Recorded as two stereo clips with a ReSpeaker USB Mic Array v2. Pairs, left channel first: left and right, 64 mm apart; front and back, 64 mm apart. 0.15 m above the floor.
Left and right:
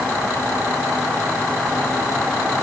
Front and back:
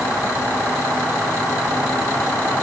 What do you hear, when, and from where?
Only background noise.